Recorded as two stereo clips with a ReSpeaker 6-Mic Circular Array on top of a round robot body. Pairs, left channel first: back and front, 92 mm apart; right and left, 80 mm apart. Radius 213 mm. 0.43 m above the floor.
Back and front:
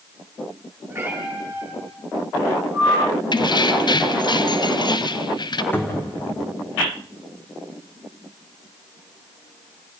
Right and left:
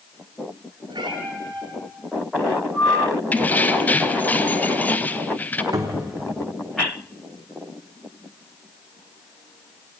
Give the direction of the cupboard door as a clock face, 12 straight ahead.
8 o'clock.